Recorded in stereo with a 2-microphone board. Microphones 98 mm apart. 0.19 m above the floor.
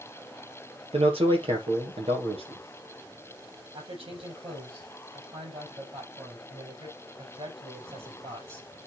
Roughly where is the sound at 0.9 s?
Right.